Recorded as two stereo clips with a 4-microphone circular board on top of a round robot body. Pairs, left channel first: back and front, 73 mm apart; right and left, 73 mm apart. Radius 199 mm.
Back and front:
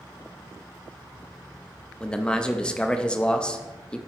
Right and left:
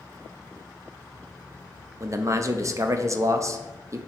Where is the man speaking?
105° left, 0.9 m.